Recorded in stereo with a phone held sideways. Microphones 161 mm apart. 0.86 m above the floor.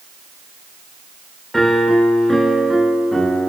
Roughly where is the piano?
Centre.